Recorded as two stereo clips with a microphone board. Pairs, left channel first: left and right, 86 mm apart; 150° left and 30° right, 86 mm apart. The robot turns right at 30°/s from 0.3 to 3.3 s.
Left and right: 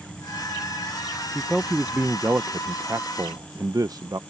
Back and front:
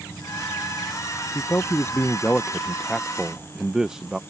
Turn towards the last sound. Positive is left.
turn(degrees=-110)